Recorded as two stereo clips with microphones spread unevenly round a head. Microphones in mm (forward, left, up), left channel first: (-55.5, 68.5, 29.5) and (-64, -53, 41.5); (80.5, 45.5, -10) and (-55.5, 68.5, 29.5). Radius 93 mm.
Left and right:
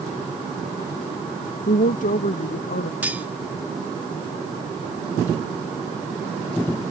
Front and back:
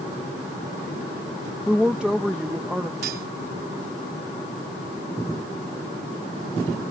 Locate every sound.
1.7 s a woman speaking: 85° left
3.0 s cutlery clinking: 170° right